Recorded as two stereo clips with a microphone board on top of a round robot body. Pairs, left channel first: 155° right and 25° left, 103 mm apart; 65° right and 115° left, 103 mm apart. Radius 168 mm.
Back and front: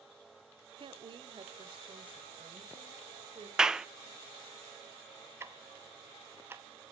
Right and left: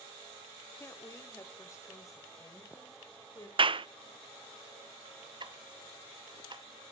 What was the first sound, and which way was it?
A woman speaking, 5° right.